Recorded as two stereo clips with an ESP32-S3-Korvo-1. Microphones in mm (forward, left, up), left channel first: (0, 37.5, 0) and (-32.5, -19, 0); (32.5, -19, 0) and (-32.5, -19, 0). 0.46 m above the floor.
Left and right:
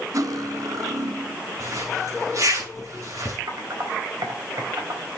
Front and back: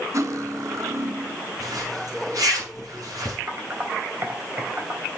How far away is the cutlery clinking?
About 1.4 m.